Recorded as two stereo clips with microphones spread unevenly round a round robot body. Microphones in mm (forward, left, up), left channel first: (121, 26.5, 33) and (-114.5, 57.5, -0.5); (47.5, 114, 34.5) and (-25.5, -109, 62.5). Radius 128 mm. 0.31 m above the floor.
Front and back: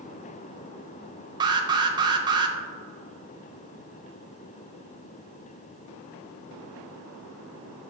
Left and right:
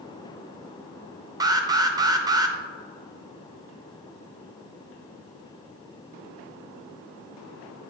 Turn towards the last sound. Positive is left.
turn(degrees=180)